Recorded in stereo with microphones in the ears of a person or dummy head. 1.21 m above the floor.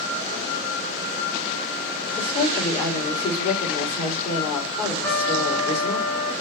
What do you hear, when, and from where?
2.2 s a woman speaking: 45° left (ahead or behind), 2.5 m
5.0 s a trumpet: 10° left (ahead or behind), 1.2 m